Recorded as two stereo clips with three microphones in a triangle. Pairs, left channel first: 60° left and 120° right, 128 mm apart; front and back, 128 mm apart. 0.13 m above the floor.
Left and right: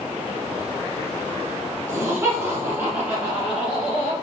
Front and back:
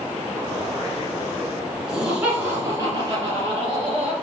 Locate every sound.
1.9 s laughter: 100° right, 1.6 m; by 4.1 s 165° left, 2 m